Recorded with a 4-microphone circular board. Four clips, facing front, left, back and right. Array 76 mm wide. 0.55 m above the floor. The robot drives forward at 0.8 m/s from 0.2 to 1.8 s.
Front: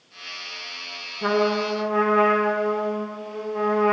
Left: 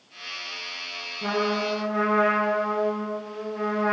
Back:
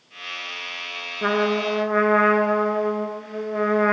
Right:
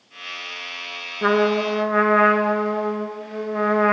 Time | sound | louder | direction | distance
1.2 | a trumpet | right 7 dB, even | 115° right | 1.6 m